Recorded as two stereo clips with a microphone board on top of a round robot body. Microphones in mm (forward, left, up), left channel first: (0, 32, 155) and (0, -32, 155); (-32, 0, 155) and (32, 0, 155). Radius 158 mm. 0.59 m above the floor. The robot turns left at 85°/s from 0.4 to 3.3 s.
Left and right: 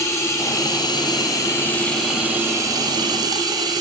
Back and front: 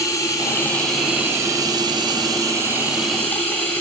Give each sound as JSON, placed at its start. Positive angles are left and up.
{"t": 0.0, "sound": "running water", "azimuth_deg": 135, "distance_m": 0.8}